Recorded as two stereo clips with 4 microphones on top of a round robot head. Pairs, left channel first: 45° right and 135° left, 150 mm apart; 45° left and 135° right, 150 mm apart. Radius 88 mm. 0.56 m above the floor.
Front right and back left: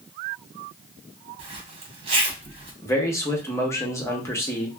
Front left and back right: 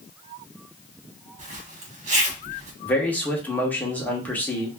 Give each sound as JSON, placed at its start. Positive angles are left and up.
{"t": 1.4, "sound": "a zipper", "azimuth_deg": -175, "distance_m": 1.1}
{"t": 2.8, "sound": "a man speaking", "azimuth_deg": -15, "distance_m": 0.9}